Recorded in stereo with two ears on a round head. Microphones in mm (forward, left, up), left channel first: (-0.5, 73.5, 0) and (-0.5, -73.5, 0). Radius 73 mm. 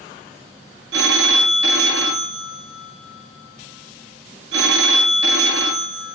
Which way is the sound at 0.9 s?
75° right (ahead or behind).